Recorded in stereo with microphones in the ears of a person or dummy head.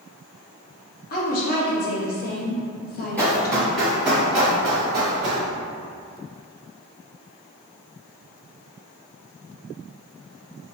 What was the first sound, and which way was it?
A woman speaking, 55° left (ahead or behind).